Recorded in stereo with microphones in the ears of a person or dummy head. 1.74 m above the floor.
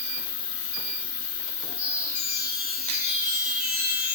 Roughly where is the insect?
Left.